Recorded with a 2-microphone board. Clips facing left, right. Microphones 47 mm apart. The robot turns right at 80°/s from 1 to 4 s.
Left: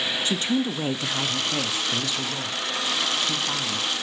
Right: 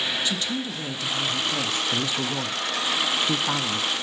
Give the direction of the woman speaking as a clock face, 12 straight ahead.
8 o'clock.